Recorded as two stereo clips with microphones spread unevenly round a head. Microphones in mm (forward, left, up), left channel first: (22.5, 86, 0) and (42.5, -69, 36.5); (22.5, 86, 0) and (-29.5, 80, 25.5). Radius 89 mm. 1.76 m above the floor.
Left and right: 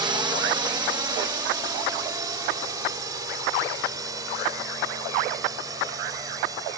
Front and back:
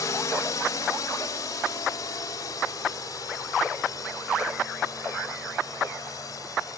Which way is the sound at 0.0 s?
15° right.